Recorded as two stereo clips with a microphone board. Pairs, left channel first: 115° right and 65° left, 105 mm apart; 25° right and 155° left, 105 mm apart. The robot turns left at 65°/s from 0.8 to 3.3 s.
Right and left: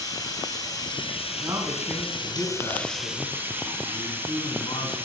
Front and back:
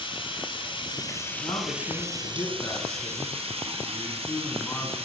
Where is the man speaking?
30° left, 3 m; by 5.0 s 95° right, 3 m.